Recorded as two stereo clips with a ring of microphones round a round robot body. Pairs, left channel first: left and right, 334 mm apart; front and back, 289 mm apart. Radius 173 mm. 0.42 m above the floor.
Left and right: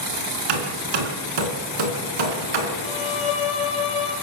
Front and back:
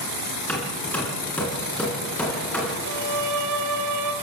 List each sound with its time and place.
0.5 s hammering: 85° right, 3.5 m
2.8 s a violin: 165° left, 2.5 m